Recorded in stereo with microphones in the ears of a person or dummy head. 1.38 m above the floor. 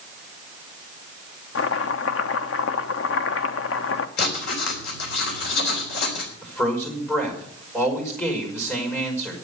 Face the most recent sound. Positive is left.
turn(degrees=10)  # may be behind; listen again after turning